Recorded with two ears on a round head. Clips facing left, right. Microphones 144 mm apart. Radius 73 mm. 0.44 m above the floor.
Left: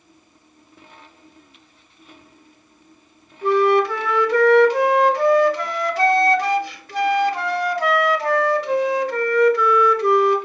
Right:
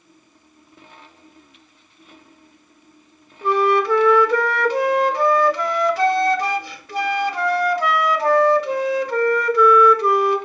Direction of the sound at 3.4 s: 75° right (ahead or behind).